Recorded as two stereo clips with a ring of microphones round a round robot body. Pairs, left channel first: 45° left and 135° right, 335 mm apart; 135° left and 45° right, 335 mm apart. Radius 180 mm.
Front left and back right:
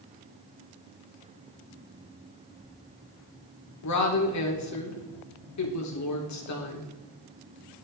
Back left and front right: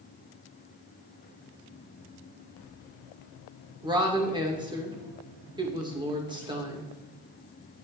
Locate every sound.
3.8 s a woman speaking: 30° left, 2.0 m